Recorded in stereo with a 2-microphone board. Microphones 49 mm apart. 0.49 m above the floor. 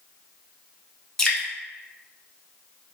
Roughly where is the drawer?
No drawer in this recording.